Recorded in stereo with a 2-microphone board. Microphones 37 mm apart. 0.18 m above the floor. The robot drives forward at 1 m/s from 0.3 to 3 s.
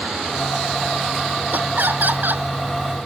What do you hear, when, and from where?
1.5 s laughter: 55° right (ahead or behind); by 2.5 s 60° right (ahead or behind)